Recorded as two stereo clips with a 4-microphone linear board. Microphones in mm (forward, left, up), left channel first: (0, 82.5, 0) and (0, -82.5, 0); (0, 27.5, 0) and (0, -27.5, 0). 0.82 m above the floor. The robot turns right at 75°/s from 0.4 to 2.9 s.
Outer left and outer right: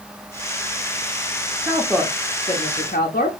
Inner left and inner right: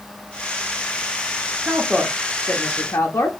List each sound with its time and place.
1.6 s a woman speaking: 30° right, 0.8 m; by 3.3 s 70° left, 0.8 m